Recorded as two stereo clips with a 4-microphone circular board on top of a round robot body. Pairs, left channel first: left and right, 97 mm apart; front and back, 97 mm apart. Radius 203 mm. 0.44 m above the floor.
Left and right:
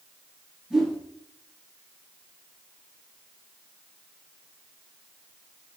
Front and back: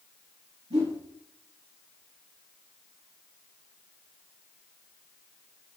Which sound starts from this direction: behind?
A whoosh, at 0.7 s.